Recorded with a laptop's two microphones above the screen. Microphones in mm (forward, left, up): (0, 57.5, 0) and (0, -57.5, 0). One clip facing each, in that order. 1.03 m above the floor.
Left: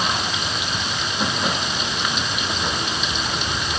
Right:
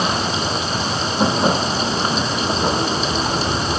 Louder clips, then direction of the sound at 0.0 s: Right 4 dB; 35° right (ahead or behind).